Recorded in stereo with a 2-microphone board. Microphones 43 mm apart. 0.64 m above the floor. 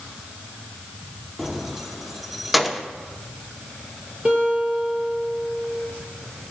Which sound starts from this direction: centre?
Keys jangling, at 1.4 s.